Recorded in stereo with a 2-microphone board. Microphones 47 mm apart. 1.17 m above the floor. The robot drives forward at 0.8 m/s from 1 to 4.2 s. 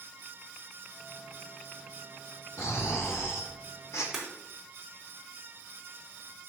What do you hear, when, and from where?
2.6 s snoring: 75° left (ahead or behind), 2.5 m
4.1 s breaking glass: 10° right (ahead or behind), 3.5 m